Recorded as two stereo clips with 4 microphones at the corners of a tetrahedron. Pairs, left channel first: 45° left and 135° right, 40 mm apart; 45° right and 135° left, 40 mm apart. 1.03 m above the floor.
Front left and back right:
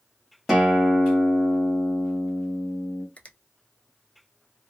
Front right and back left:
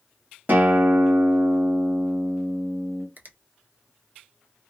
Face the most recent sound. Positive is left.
turn(degrees=100)